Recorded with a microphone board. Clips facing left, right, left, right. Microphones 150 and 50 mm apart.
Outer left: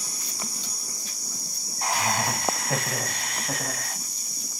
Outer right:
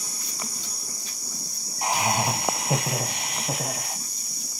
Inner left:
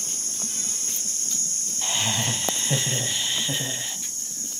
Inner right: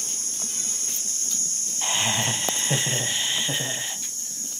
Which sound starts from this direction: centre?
Laughter, at 1.8 s.